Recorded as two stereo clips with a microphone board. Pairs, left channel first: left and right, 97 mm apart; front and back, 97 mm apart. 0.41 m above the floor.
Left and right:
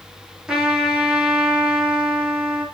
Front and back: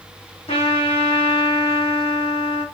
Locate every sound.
0.5 s a trumpet: 5° right, 7.5 m